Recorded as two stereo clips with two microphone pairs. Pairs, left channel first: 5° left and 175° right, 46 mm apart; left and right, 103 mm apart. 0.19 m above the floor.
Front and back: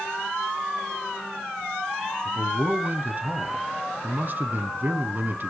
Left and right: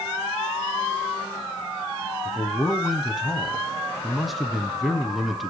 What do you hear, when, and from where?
2.2 s a man speaking: straight behind, 1.3 m